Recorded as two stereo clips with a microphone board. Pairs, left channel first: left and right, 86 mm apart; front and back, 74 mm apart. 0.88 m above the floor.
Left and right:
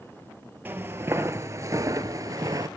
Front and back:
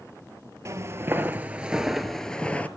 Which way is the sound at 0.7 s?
150° right.